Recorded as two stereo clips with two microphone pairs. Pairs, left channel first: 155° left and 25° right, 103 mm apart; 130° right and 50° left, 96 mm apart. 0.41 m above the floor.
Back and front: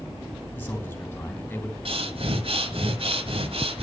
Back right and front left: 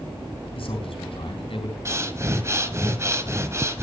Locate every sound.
0.6 s a man speaking: 135° right, 3.5 m
1.9 s breathing: 5° right, 1.4 m